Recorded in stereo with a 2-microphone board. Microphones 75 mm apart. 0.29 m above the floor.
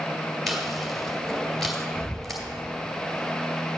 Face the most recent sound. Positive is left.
turn(degrees=0)  # may be behind; listen again after turning